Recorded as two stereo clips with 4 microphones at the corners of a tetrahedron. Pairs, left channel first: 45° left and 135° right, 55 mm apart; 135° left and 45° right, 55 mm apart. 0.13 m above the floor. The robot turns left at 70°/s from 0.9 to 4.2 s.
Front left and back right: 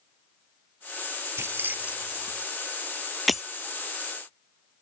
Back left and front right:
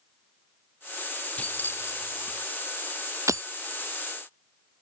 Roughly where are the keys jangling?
Behind.